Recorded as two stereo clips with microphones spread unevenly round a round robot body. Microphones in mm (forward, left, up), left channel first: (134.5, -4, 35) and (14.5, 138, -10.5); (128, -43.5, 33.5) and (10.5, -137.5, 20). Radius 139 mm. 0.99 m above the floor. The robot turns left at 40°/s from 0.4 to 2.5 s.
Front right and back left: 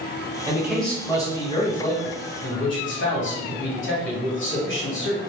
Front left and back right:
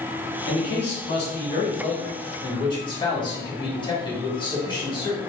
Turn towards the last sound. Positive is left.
turn(degrees=-25)